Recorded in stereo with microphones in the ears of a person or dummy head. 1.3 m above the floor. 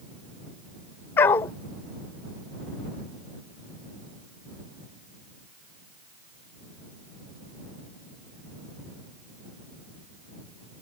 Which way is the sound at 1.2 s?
15° left (ahead or behind).